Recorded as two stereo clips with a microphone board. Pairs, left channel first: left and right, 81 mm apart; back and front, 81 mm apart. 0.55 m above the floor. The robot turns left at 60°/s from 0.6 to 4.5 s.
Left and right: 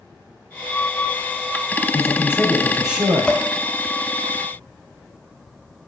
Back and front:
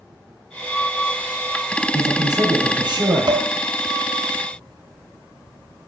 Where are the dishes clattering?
15° left, 1.9 m; by 3.5 s straight ahead, 1.9 m.